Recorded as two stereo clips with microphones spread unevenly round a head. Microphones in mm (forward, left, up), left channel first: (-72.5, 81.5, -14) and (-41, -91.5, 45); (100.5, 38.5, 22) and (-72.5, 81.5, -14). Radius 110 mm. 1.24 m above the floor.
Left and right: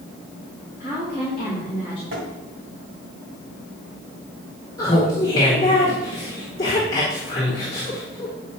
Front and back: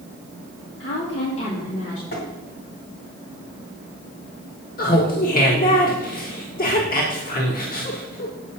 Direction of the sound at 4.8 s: 25° left.